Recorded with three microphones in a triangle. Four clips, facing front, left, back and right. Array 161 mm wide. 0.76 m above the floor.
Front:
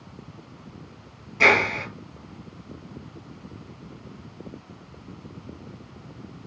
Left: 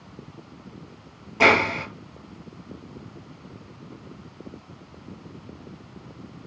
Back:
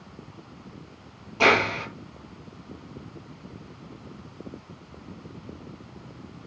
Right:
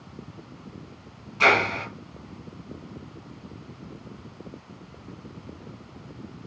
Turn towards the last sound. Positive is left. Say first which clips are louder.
# left 2 dB, even
turn(degrees=105)